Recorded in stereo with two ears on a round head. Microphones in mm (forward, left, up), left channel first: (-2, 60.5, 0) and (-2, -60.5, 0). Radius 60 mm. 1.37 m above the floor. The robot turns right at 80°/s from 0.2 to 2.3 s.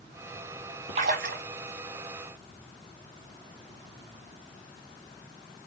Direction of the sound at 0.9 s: 125° right.